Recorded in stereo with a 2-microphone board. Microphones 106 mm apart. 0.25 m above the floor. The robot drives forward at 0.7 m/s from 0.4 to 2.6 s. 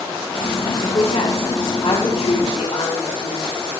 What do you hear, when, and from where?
0.8 s a woman speaking: 75° left (ahead or behind), 6.5 m; by 3.4 s 80° left, 6.5 m